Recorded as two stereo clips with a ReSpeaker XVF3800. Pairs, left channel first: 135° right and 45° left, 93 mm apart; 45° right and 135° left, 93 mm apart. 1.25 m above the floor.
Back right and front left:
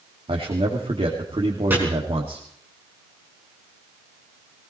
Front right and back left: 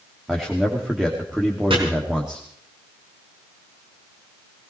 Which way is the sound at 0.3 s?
55° left.